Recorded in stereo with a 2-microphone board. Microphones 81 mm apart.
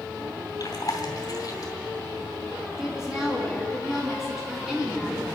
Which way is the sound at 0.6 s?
55° left (ahead or behind).